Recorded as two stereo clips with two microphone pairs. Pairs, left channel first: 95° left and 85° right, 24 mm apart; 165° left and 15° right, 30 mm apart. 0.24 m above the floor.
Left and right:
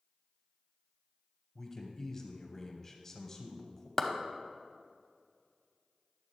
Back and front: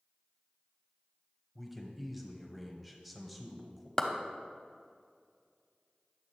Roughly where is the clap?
Behind left.